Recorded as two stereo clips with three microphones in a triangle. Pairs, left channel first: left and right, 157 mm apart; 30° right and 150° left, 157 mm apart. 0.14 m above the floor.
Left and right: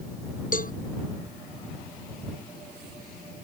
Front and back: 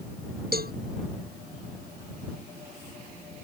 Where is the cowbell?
125° left.